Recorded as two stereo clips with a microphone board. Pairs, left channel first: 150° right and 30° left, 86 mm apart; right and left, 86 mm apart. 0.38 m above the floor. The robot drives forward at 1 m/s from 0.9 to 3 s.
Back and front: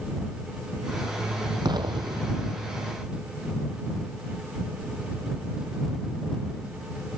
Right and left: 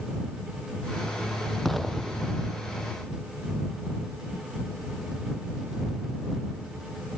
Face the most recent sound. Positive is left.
turn(degrees=0)